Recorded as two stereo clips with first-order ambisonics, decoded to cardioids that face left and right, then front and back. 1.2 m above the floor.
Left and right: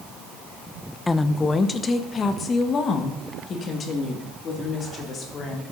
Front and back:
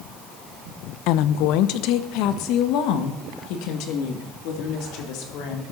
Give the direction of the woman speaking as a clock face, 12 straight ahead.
12 o'clock.